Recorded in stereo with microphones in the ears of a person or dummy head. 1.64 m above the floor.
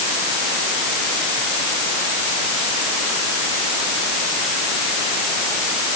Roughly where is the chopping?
No chopping in this recording.